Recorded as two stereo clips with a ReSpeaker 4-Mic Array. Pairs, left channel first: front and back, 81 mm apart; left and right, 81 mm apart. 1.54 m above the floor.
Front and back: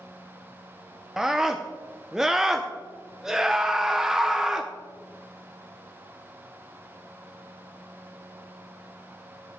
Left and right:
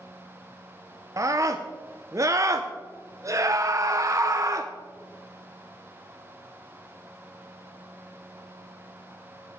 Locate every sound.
1.2 s a scream: 100° right, 0.6 m